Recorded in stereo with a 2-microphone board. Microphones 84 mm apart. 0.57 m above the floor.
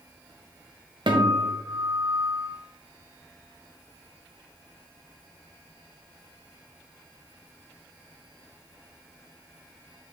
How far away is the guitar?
About 1.3 m.